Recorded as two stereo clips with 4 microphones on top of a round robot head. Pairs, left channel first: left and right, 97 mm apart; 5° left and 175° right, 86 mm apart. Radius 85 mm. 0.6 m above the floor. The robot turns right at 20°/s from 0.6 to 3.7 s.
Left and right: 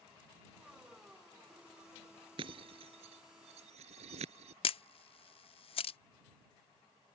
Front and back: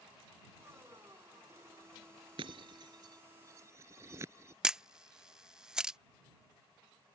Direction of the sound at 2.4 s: 135° right.